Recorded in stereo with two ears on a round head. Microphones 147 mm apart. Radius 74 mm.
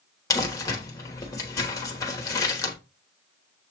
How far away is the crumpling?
About 1.1 m.